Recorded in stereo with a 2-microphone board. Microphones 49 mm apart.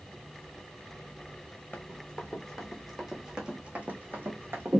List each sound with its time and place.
1.7 s running footsteps: 20° left (ahead or behind), 1.3 m; by 4.8 s 60° right (ahead or behind), 1.2 m